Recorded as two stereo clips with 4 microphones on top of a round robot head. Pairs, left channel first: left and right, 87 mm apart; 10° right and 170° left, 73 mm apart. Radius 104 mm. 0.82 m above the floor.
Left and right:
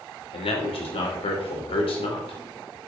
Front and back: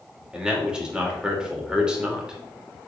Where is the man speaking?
95° left, 3 m.